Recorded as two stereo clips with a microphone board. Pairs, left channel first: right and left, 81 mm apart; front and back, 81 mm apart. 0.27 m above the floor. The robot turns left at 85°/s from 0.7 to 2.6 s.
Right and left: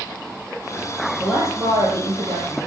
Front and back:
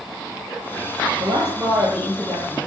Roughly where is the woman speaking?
Behind.